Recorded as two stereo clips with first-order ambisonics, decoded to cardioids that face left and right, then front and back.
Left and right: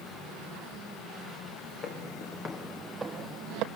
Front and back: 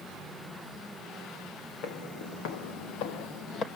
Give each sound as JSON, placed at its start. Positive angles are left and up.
{"t": 1.8, "sound": "footsteps", "azimuth_deg": 40, "distance_m": 2.5}